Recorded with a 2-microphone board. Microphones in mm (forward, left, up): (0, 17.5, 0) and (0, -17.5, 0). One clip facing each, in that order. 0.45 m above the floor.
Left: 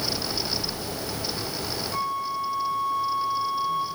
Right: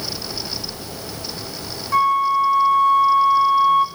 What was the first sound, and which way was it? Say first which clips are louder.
A flute: right 14 dB; 70° right (ahead or behind).